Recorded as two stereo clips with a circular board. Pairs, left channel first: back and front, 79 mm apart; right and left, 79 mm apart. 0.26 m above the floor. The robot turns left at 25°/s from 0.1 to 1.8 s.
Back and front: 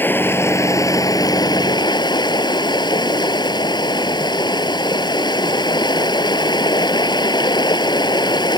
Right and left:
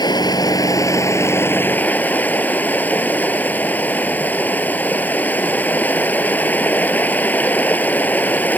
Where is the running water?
115° right; by 8.6 s 160° right.